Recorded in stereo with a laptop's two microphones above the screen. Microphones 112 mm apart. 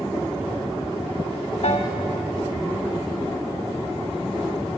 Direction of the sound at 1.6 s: 75° left (ahead or behind).